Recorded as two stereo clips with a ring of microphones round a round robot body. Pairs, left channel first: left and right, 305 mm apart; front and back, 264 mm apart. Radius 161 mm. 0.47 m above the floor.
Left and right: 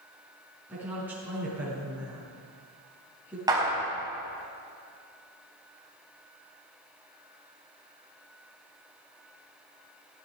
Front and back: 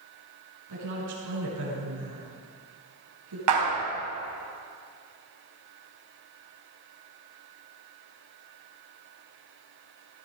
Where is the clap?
170° right, 4 m.